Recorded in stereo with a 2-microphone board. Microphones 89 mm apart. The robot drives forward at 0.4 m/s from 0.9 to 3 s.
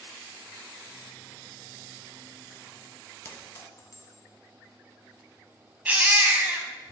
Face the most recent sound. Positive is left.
turn(degrees=-20)  # may be behind; listen again after turning